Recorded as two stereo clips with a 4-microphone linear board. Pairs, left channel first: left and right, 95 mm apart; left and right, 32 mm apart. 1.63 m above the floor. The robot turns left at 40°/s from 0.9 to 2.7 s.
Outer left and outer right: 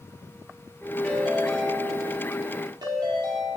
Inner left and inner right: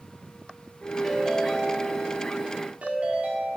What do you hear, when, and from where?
1.0 s a ringtone: 10° left, 2 m; by 3.6 s 60° right, 2 m